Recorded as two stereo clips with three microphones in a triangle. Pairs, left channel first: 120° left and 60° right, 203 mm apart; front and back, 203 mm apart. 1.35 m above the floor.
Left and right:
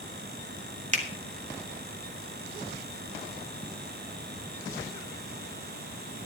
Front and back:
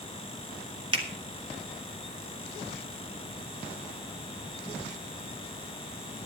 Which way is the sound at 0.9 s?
115° right.